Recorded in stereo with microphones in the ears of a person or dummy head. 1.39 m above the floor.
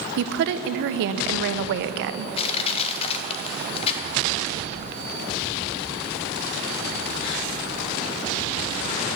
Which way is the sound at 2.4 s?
35° left (ahead or behind).